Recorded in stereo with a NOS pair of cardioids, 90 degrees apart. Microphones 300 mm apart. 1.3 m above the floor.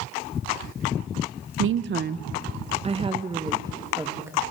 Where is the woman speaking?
50° right, 0.7 m; by 4.4 s 10° right, 1.9 m.